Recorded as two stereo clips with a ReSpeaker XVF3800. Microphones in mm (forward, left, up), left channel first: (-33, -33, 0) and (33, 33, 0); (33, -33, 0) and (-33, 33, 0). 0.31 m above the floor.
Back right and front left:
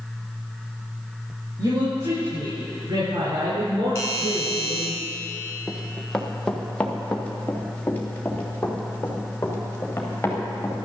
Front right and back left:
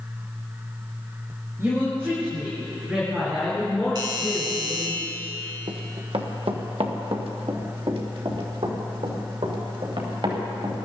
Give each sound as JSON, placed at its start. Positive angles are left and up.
{"t": 1.6, "sound": "a woman speaking", "azimuth_deg": 75, "distance_m": 6.0}
{"t": 4.0, "sound": "a doorbell", "azimuth_deg": 165, "distance_m": 3.5}
{"t": 5.7, "sound": "running footsteps", "azimuth_deg": 135, "distance_m": 2.0}